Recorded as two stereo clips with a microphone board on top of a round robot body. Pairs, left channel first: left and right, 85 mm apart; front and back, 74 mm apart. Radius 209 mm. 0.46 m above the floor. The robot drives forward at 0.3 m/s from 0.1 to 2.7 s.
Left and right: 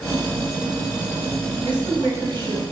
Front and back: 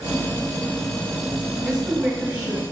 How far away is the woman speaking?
About 1.7 m.